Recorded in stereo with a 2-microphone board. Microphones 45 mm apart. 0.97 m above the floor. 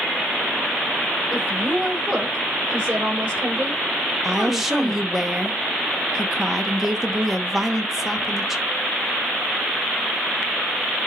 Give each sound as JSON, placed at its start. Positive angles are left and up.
{"t": 1.3, "sound": "a woman speaking", "side_deg": -25, "distance_m": 4.0}
{"t": 4.2, "sound": "a woman speaking", "side_deg": -5, "distance_m": 1.0}